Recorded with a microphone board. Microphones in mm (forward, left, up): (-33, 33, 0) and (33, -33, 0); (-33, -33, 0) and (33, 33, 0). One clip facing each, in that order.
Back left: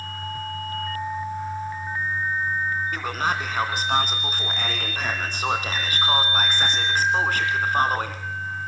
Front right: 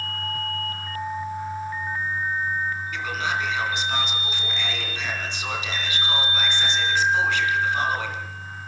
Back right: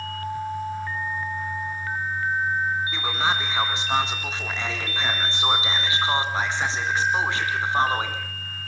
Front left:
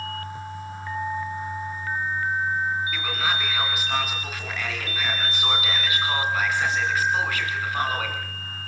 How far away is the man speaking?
About 2.5 m.